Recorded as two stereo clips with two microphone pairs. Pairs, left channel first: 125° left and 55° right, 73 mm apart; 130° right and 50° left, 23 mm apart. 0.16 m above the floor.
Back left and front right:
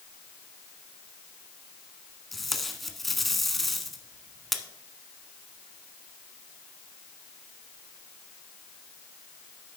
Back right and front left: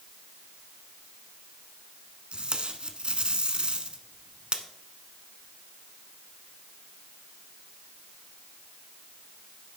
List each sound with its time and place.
2.3 s tape being pulled: 35° left, 0.9 m